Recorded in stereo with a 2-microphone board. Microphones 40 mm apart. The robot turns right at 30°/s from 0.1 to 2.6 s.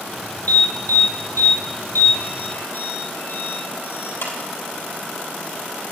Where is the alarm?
50° left (ahead or behind), 3.5 m; by 4.4 s 60° left (ahead or behind), 3.5 m.